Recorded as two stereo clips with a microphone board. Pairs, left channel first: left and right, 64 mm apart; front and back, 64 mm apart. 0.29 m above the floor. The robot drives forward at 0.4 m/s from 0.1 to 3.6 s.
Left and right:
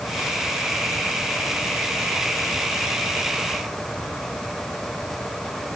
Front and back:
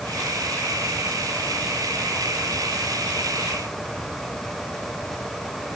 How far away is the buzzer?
I don't hear a buzzer.